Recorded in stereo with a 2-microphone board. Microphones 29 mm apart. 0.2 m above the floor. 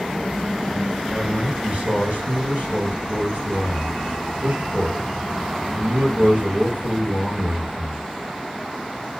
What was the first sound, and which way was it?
A man speaking, 65° right (ahead or behind).